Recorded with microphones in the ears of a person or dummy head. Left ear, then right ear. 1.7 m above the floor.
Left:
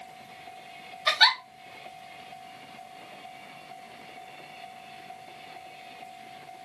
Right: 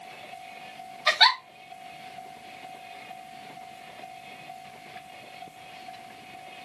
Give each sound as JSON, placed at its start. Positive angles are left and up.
{"t": 1.1, "sound": "a giggle", "side_deg": -5, "distance_m": 1.1}